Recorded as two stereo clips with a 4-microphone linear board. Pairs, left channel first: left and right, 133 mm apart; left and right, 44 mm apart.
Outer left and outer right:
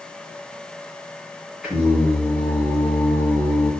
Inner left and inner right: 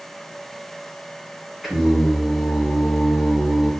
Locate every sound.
1.6 s singing: 5° right (ahead or behind), 3 m